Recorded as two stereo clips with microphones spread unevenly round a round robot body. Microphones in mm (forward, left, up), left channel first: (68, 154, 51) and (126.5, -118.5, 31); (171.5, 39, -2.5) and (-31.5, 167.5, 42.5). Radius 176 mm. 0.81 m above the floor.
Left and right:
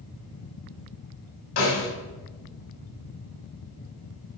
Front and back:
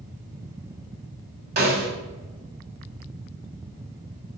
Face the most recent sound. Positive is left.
turn(degrees=110)